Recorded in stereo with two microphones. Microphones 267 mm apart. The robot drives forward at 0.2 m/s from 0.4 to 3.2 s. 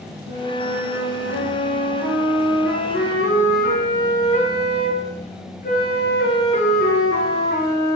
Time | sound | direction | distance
0.3 | a flute | 45° left (ahead or behind) | 6 m